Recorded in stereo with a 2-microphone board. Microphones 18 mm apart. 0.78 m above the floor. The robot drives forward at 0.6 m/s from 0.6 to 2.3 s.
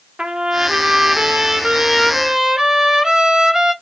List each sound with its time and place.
0.2 s a trumpet: 70° right (ahead or behind), 0.5 m; by 3.7 s 30° right (ahead or behind), 1.0 m